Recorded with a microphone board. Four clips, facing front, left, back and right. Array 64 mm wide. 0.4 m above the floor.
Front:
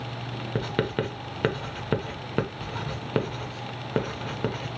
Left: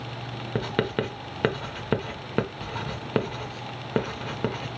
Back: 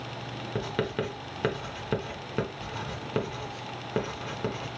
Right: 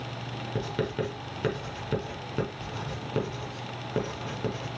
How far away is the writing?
About 0.9 m.